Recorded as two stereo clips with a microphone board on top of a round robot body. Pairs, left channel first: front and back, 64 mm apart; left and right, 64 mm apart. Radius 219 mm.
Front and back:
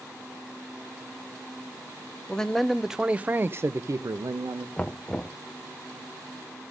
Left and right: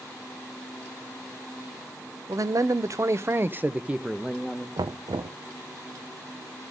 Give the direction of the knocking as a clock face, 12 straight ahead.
3 o'clock.